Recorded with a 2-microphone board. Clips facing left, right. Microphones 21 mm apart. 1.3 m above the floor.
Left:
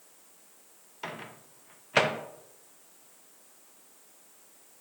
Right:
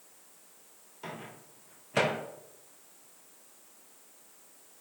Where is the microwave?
35° left (ahead or behind), 0.7 m.